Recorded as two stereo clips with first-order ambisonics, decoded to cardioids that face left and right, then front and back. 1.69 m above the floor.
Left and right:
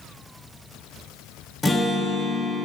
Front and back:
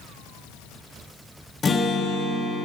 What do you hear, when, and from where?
1.6 s a guitar: 25° left, 0.8 m